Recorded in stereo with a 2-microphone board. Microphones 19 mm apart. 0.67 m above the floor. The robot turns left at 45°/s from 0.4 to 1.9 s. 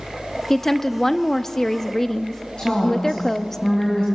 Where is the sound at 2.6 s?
45° left (ahead or behind), 5.5 m.